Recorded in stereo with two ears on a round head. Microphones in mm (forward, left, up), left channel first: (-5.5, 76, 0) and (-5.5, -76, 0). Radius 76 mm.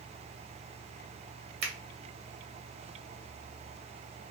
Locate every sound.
1.6 s a finger snap: 40° right (ahead or behind), 1.5 m